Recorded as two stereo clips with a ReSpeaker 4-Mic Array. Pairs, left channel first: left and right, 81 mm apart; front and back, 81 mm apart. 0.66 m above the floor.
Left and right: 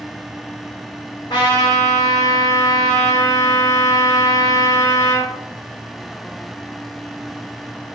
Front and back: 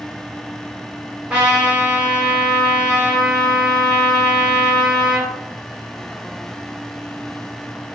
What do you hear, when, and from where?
1.3 s a trumpet: 105° left, 1.5 m